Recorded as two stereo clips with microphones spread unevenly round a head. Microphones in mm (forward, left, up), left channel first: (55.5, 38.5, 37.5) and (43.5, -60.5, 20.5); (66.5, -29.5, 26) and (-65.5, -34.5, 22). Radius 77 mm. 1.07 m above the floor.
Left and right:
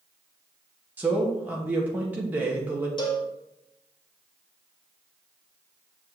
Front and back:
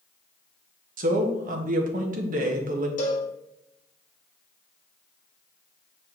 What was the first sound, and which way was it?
A man speaking, 170° right.